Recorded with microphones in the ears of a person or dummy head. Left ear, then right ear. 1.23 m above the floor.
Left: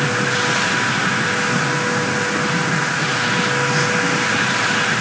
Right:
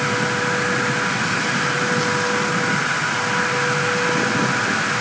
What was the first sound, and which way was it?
Only background noise.